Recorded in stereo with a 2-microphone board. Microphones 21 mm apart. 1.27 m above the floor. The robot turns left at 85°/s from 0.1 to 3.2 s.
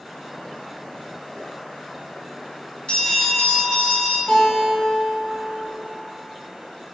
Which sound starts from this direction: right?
A guitar, at 4.3 s.